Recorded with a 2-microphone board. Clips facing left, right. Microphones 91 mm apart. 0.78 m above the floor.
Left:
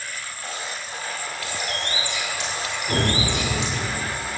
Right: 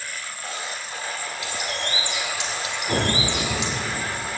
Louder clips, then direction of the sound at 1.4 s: Even; 20° right (ahead or behind).